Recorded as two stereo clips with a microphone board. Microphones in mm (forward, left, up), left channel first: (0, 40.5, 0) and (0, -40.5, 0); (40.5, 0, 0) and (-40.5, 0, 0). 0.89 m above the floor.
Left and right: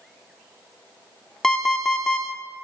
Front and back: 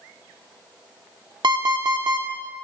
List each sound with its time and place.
1.4 s an alarm clock: 175° left, 0.8 m